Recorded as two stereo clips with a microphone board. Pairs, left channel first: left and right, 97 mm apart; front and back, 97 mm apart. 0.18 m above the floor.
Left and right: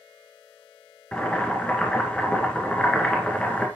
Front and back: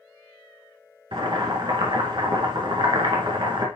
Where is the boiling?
165° left, 1.7 m.